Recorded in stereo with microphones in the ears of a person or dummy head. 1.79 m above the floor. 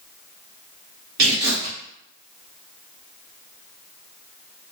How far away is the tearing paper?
About 1.8 m.